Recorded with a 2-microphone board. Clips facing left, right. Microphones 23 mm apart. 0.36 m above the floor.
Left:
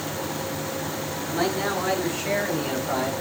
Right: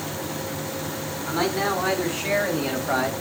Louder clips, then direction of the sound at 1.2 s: Right 2 dB; 45° right (ahead or behind).